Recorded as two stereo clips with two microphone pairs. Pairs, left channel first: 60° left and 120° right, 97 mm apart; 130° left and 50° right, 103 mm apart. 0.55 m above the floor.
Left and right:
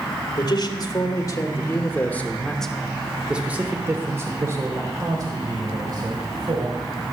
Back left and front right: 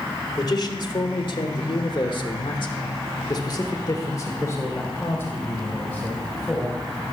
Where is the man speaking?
95° left, 1.8 m; by 6.8 s 150° right, 3 m.